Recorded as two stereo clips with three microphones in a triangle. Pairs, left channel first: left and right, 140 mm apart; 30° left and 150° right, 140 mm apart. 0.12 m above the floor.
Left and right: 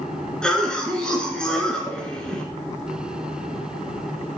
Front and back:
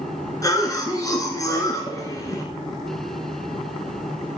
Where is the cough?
15° left, 1.3 m.